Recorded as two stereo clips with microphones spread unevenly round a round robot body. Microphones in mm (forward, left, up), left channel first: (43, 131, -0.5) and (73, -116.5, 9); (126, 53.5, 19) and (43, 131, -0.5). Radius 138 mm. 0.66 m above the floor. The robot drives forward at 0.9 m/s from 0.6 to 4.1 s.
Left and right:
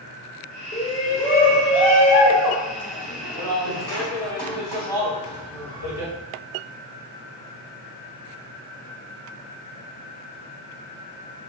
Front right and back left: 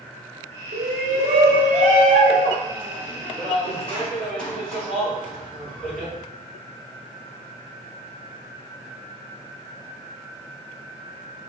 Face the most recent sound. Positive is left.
turn(degrees=175)